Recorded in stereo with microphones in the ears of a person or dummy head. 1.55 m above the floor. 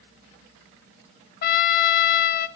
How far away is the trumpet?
About 0.7 m.